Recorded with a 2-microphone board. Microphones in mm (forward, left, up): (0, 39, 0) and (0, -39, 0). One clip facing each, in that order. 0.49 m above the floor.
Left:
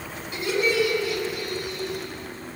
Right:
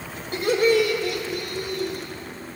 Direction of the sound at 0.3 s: 55° right (ahead or behind).